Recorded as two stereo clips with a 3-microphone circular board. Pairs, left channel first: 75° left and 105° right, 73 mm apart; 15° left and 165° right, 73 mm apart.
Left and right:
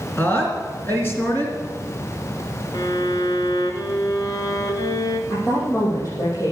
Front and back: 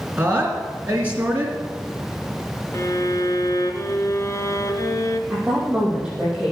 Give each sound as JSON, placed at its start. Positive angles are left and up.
{"t": 0.2, "sound": "a woman speaking", "azimuth_deg": 130, "distance_m": 3.0}
{"t": 2.7, "sound": "a violin", "azimuth_deg": 55, "distance_m": 1.4}
{"t": 5.3, "sound": "a woman speaking", "azimuth_deg": 120, "distance_m": 6.5}